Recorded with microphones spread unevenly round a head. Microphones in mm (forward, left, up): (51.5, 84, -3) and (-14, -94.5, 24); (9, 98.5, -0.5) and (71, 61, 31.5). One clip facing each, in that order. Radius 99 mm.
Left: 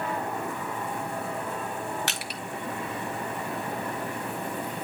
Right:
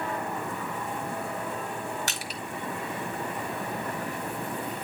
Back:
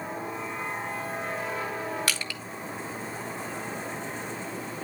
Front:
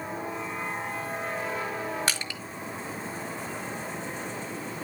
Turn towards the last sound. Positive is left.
turn(degrees=40)